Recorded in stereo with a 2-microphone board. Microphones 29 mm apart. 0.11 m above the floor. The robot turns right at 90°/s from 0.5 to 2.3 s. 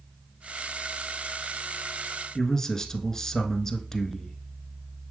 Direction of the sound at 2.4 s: 20° left (ahead or behind).